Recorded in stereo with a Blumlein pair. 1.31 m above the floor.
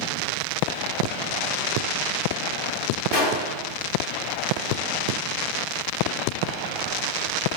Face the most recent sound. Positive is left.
turn(degrees=40)